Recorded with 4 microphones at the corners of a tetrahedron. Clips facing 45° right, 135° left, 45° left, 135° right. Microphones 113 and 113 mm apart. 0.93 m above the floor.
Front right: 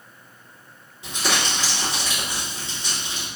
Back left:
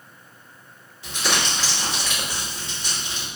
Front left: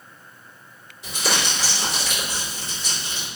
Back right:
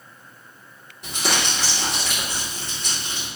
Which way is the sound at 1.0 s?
115° right.